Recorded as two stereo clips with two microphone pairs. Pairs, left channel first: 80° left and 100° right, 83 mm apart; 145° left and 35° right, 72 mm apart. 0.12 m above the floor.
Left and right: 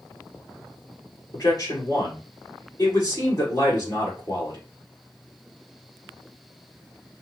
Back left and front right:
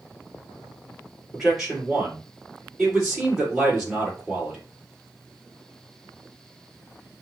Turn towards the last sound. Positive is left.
turn(degrees=45)